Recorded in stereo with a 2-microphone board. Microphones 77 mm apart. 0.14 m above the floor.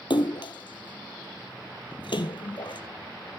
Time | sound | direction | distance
0.1 | a splash | 75° left (ahead or behind) | 0.7 m